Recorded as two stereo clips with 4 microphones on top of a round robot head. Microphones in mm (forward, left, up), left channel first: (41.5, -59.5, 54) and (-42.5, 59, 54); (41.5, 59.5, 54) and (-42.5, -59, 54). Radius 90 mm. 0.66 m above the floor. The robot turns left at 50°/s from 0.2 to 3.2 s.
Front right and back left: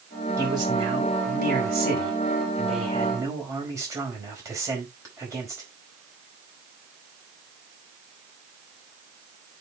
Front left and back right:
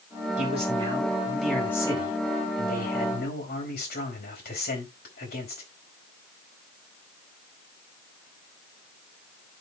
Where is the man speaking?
160° right, 4.5 m; by 5.6 s 55° left, 4.5 m.